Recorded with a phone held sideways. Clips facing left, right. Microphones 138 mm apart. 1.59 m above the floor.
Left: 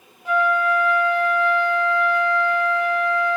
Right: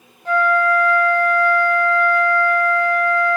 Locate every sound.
0.2 s a flute: 15° left (ahead or behind), 1.3 m